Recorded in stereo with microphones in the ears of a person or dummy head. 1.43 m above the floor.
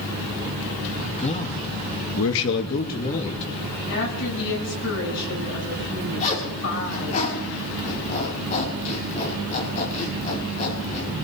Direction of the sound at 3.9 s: 70° left (ahead or behind).